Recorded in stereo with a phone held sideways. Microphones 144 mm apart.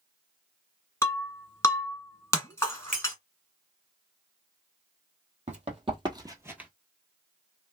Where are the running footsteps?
50° right (ahead or behind), 1.6 m; by 6.7 s 5° right (ahead or behind), 1.0 m.